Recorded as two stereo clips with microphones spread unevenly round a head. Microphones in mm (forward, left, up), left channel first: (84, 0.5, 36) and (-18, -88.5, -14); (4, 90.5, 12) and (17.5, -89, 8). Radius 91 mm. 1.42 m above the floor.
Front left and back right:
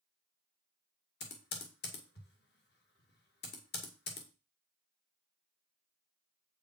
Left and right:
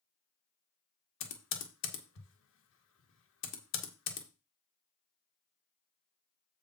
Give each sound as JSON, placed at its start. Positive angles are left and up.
{"t": 1.2, "sound": "typing on a keyboard", "azimuth_deg": 80, "distance_m": 1.8}